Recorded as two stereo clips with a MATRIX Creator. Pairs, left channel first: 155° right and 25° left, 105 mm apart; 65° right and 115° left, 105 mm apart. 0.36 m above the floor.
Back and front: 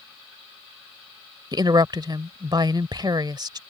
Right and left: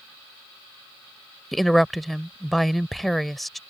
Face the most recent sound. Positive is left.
turn(degrees=20)